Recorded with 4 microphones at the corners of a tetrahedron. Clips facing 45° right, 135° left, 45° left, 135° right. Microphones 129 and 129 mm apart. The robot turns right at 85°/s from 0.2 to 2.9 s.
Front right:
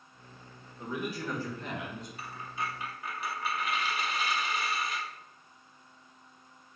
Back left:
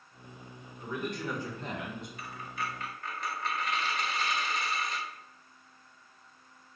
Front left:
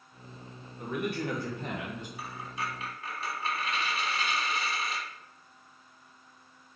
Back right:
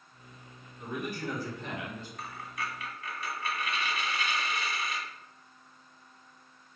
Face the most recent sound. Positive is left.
turn(degrees=30)